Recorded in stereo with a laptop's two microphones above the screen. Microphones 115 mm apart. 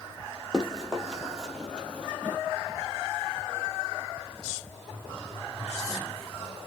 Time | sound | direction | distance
0.5 | running footsteps | 5° right (ahead or behind) | 1.3 m